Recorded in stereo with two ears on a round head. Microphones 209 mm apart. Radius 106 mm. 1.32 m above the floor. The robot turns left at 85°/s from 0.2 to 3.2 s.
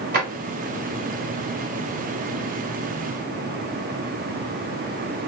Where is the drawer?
40° right (ahead or behind), 1.7 m; by 0.3 s 50° right (ahead or behind), 1.7 m.